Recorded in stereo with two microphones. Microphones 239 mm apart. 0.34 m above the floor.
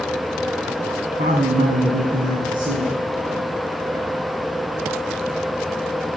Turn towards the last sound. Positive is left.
turn(degrees=-35)  # may be behind; listen again after turning